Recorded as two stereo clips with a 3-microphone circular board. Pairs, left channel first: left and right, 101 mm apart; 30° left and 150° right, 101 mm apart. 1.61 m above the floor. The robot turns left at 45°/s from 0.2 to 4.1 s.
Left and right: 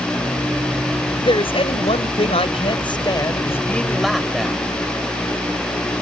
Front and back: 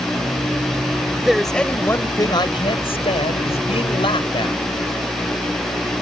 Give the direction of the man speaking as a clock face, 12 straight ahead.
8 o'clock.